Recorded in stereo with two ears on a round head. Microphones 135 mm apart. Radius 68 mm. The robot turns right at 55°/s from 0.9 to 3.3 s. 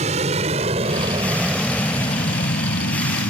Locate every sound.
0.0 s an aircraft: 45° right (ahead or behind); by 3.3 s 75° left (ahead or behind)